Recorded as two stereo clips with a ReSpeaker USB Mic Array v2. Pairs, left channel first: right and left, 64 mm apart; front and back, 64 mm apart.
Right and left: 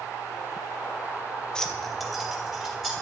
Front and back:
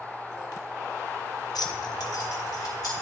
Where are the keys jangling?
10° right, 0.6 m; by 2.9 s 10° left, 2 m.